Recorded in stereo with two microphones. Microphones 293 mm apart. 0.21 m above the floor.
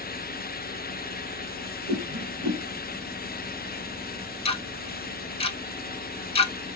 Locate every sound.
1.9 s a whoosh: 65° right (ahead or behind), 1.1 m
4.5 s ticking: 20° left (ahead or behind), 0.7 m